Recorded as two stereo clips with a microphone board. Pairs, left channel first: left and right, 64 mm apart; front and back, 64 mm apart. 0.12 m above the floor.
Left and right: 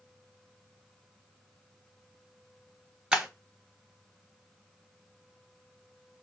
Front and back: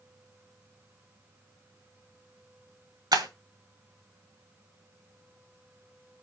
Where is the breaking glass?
170° right, 1.4 m.